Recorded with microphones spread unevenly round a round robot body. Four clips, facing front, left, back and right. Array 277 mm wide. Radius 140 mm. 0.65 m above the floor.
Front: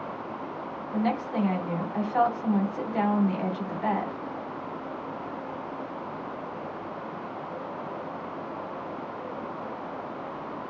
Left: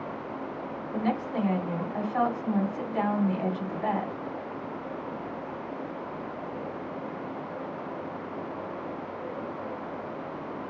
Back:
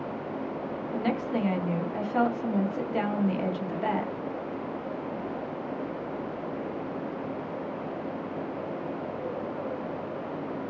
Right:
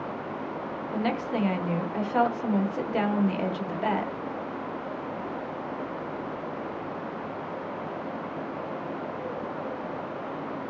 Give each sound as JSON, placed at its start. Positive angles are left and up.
{"t": 0.9, "sound": "a woman speaking", "azimuth_deg": -105, "distance_m": 1.3}